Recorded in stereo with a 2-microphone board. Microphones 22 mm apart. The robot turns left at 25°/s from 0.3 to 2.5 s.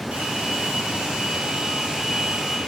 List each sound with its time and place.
0.1 s a hair dryer: 100° right, 5 m; by 2.6 s 155° right, 5 m